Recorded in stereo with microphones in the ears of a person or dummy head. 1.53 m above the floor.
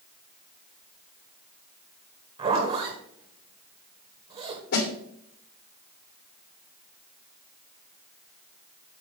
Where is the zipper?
30° right (ahead or behind), 1.8 m.